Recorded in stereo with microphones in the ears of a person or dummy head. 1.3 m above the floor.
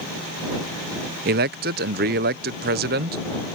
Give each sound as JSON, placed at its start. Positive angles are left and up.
{"t": 1.2, "sound": "a man speaking", "side_deg": -50}